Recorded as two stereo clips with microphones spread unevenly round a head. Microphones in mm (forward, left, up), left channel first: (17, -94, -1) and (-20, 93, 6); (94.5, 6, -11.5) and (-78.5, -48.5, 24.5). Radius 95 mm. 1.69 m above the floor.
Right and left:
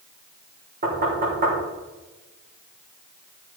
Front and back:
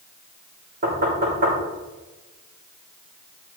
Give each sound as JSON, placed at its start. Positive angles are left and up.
{"t": 0.8, "sound": "knocking", "azimuth_deg": 150, "distance_m": 4.0}